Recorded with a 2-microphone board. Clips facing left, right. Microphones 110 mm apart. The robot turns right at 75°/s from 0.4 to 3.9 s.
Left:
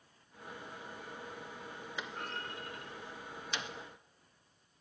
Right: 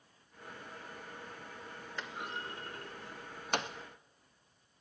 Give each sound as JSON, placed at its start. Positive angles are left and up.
{"t": 2.0, "sound": "a clunk", "side_deg": 5, "distance_m": 0.8}